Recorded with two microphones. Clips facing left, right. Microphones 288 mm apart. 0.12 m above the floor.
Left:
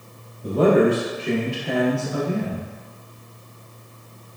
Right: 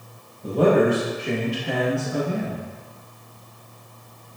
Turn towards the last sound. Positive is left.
turn(degrees=0)  # may be behind; listen again after turning